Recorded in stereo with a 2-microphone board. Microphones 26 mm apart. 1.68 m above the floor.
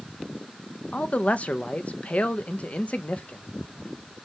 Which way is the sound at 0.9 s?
55° left (ahead or behind).